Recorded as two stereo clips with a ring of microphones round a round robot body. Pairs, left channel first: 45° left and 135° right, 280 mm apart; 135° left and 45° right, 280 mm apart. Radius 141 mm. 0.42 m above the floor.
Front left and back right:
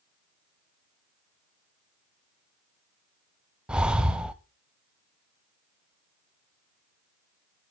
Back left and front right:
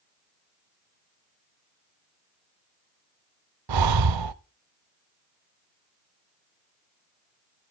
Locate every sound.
3.7 s breathing: 50° right, 0.7 m